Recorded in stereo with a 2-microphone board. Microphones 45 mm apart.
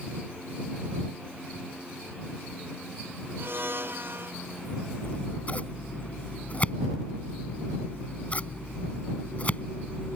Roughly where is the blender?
Right.